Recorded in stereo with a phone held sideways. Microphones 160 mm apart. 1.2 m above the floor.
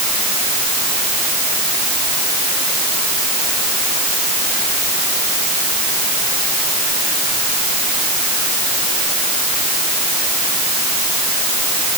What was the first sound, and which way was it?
Only background noise.